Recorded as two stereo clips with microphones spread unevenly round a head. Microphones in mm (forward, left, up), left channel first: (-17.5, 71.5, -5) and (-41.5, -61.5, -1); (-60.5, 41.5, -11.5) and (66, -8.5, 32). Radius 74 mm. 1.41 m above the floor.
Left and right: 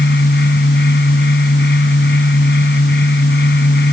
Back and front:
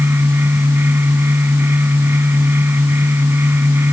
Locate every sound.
0.0 s a fan: 50° left